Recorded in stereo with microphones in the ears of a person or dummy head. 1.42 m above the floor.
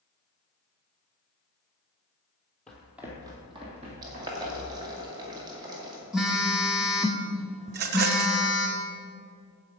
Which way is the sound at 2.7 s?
5° left (ahead or behind).